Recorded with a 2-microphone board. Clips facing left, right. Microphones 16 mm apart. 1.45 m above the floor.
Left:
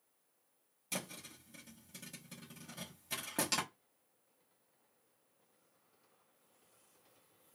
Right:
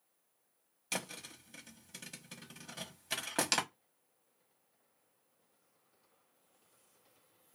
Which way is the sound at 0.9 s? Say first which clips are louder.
Right 3 dB; 30° right (ahead or behind).